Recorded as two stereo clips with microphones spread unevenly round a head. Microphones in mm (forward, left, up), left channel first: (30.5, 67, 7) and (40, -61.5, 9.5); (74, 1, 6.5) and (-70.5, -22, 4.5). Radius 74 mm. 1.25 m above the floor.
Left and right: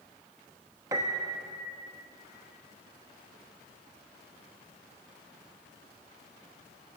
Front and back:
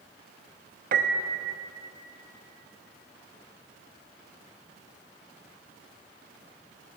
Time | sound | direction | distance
0.9 | a piano | 150° right | 0.8 m